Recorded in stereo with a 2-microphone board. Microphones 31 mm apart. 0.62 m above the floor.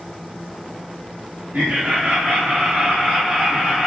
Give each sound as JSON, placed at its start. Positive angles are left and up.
{"t": 1.5, "sound": "laughter", "side_deg": -55, "distance_m": 1.1}